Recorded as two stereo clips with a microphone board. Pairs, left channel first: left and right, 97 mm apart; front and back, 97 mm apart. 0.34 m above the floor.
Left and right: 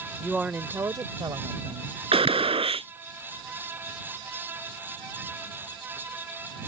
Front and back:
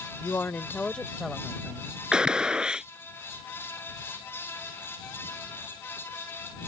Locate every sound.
0.2 s a woman speaking: straight ahead; by 2.0 s 95° right
2.1 s a gunshot: 100° right